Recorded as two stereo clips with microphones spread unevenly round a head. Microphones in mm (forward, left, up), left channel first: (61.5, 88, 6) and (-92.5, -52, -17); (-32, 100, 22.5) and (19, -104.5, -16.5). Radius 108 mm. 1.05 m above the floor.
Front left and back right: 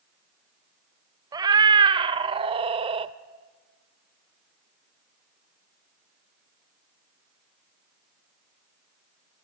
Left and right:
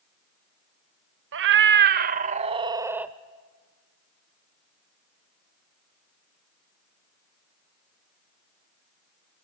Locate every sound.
1.3 s a cat meowing: 65° right, 1.0 m; by 3.1 s straight behind, 0.8 m